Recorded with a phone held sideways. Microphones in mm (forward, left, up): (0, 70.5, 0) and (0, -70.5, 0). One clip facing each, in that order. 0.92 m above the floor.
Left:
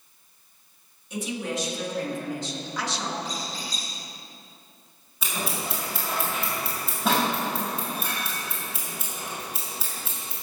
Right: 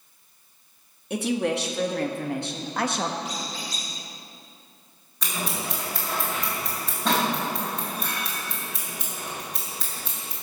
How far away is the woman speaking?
About 1.8 m.